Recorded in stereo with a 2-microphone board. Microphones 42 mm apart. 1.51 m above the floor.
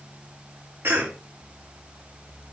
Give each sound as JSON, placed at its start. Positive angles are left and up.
{"t": 0.8, "sound": "a cough", "side_deg": -80, "distance_m": 3.0}